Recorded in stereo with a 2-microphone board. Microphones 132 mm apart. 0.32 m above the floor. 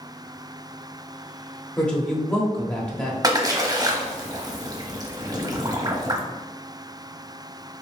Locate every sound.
1.8 s a woman speaking: 5° left (ahead or behind), 0.9 m
3.2 s a splash: 30° right (ahead or behind), 0.7 m